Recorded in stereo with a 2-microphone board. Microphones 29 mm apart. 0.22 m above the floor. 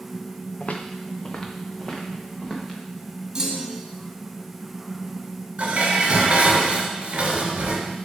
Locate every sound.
0.6 s footsteps: 45° left (ahead or behind), 1.0 m; by 2.8 s 5° left (ahead or behind), 3 m
3.4 s a clunk: 25° right (ahead or behind), 1.0 m
5.6 s dishes clattering: 50° right (ahead or behind), 1.5 m